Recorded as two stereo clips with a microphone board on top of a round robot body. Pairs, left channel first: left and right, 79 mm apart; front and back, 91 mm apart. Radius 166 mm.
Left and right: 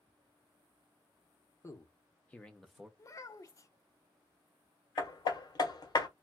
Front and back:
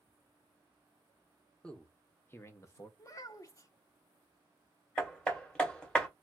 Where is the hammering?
80° left, 1.2 m.